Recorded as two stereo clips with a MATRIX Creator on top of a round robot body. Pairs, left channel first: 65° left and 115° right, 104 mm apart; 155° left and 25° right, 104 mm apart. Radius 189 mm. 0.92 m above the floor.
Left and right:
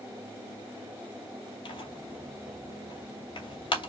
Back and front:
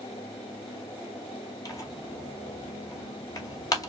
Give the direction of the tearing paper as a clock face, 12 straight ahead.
9 o'clock.